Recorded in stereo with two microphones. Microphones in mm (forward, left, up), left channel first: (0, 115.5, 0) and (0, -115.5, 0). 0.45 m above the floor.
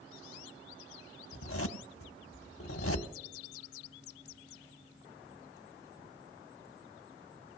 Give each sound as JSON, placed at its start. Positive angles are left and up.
{"t": 1.3, "sound": "a zipper", "side_deg": 75, "distance_m": 0.8}